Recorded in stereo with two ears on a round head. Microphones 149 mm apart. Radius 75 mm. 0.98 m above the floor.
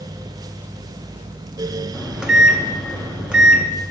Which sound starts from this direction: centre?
A microwave, at 1.9 s.